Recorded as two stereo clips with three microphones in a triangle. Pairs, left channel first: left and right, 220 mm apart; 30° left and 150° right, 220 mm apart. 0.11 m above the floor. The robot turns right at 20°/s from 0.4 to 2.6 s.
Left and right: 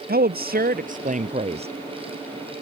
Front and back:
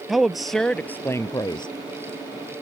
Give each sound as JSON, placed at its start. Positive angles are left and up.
{"t": 0.1, "sound": "a woman speaking", "azimuth_deg": -60}